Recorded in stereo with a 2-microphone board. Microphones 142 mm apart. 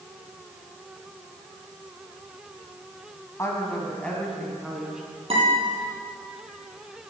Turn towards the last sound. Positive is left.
turn(degrees=-45)  # may be behind; listen again after turning